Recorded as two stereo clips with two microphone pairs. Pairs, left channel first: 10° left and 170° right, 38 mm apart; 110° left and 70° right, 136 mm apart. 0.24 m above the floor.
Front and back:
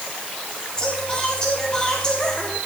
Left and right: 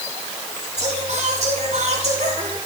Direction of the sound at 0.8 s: 55° right.